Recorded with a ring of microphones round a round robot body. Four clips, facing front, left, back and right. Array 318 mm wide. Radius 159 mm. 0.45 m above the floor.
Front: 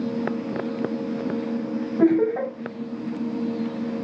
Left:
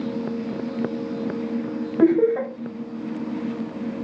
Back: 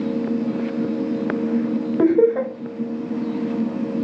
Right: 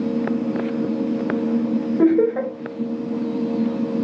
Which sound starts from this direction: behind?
Laughter, at 2.0 s.